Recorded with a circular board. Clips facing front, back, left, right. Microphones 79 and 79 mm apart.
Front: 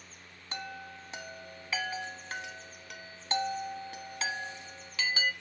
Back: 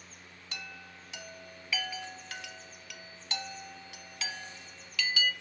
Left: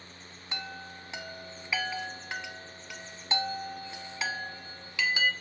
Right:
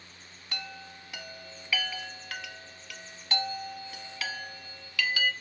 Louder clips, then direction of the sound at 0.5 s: Front 6 dB, left 2 dB; 35° left.